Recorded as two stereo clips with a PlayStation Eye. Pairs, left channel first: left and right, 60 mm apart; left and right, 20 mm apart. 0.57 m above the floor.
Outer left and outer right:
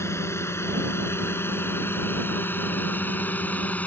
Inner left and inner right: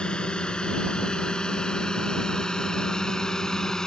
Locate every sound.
0.0 s a drone: 50° left (ahead or behind); by 3.9 s 25° left (ahead or behind)